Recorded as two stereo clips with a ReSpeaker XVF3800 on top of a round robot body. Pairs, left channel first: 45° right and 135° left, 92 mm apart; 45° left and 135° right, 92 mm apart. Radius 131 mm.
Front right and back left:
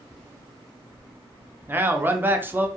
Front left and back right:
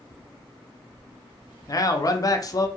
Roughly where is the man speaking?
Left.